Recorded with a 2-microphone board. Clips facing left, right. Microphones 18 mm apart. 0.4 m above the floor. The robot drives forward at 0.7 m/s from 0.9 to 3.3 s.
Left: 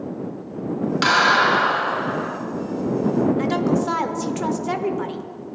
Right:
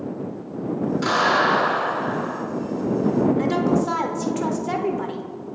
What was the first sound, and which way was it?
A clap, 70° left (ahead or behind).